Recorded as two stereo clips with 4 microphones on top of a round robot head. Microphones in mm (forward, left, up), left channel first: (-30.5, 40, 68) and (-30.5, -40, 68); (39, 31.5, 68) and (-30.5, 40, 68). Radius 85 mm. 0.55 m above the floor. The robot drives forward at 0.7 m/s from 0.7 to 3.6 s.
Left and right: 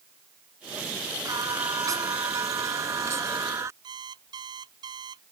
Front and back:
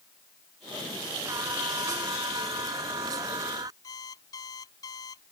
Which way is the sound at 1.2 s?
135° right.